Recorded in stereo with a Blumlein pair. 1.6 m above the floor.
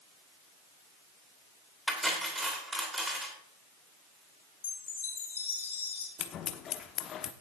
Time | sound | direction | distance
1.9 | cutlery clinking | 5° right | 3 m
4.6 | a chime | 70° left | 3 m
6.2 | scissors | 30° left | 0.9 m